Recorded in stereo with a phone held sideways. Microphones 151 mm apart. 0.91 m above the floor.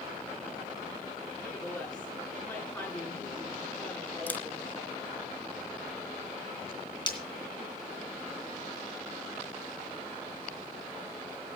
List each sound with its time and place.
1.4 s a woman speaking: 10° left (ahead or behind), 9.5 m
4.3 s a camera shutter: 10° left (ahead or behind), 0.9 m
7.1 s breaking glass: 30° left (ahead or behind), 2.5 m